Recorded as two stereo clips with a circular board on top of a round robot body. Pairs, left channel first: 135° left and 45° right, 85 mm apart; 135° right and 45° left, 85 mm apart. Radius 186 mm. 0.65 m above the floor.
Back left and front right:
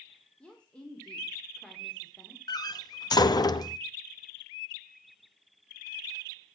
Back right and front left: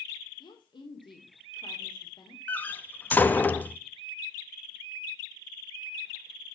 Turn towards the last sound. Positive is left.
turn(degrees=160)